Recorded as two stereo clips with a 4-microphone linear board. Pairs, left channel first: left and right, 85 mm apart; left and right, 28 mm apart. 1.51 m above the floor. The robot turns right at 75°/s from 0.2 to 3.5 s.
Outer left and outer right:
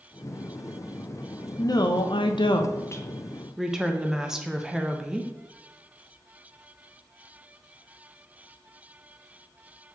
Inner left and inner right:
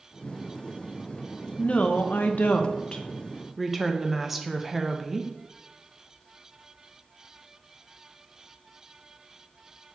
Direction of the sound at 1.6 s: 40° left.